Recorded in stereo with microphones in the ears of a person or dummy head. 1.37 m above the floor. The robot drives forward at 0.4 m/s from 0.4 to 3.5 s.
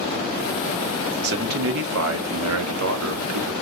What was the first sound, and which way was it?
A man speaking, 55° right (ahead or behind).